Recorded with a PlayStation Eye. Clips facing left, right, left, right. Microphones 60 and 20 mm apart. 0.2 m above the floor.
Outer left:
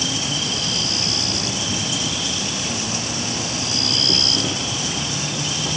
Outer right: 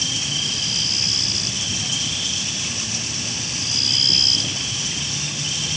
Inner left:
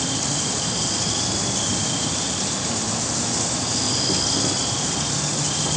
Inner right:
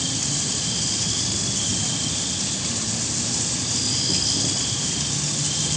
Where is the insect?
55° left (ahead or behind).